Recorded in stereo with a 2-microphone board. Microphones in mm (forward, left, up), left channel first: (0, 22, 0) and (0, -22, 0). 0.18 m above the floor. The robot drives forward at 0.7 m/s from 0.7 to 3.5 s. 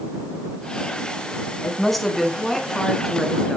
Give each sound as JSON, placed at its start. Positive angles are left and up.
{"t": 1.6, "sound": "a woman speaking", "side_deg": 5, "distance_m": 1.0}